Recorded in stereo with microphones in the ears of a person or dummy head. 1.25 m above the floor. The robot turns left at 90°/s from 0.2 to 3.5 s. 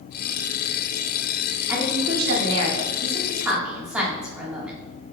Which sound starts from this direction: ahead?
A woman speaking, at 1.7 s.